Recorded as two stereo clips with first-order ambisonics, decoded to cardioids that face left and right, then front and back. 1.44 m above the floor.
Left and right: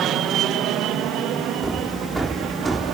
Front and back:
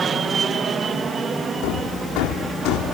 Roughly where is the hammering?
Ahead.